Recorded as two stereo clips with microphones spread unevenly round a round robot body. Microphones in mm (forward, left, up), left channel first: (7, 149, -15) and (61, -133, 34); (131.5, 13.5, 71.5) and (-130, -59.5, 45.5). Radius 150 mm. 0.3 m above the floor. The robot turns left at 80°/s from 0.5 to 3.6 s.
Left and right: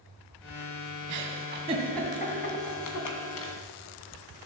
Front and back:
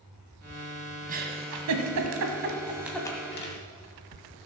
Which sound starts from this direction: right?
A giggle, at 1.1 s.